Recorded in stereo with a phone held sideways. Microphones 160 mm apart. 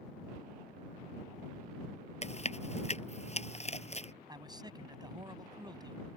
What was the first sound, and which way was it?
Chewing, 40° left (ahead or behind).